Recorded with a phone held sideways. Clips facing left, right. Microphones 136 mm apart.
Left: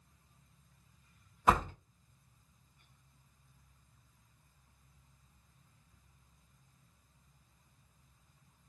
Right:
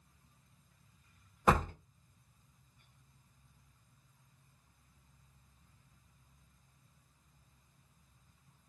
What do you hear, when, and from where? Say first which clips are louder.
1.5 s a door slam: even; 45° right (ahead or behind), 1.1 m